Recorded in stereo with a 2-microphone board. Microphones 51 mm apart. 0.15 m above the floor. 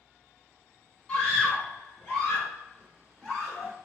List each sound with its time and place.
1.1 s a scream: 10° left (ahead or behind), 1.7 m; by 3.7 s centre (ahead or behind), 2.5 m